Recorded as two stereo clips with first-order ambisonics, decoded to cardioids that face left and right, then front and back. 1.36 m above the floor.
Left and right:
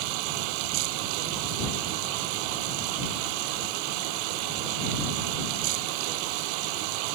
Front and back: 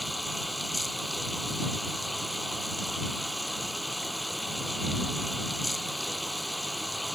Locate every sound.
0.0 s running water: 90° right